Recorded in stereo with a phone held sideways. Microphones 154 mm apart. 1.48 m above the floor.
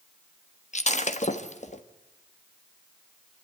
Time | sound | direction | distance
0.7 | breaking glass | 50° left (ahead or behind) | 1.2 m